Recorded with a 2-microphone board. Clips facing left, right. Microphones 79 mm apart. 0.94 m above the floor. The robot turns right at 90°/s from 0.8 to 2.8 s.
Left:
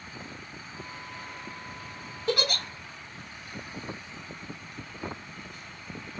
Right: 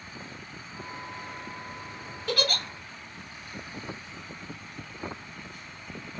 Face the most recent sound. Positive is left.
turn(degrees=-165)